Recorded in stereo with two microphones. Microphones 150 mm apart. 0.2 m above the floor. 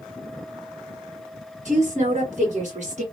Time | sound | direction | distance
1.6 | a woman speaking | 60° right (ahead or behind) | 2.5 m